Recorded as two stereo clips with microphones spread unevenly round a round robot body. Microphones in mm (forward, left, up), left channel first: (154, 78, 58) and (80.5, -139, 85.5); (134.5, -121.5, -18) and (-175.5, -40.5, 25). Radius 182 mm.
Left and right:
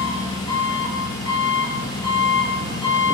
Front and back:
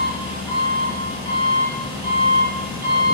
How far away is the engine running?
About 4.5 m.